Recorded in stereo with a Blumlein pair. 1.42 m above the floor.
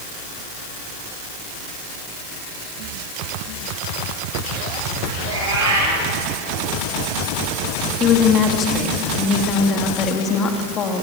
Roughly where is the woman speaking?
Ahead left.